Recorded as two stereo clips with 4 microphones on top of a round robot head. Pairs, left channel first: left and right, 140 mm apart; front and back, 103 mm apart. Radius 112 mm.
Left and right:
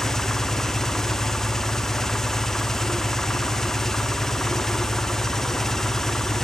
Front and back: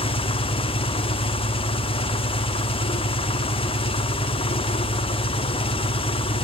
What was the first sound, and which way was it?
An engine running, 5° left.